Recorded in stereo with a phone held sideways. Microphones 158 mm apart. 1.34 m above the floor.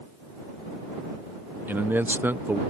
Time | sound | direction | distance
1.7 | a man speaking | 10° right (ahead or behind) | ?